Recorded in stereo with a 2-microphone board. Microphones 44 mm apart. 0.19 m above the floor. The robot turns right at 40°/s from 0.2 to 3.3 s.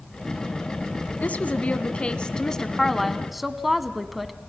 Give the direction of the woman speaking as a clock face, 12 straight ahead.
9 o'clock.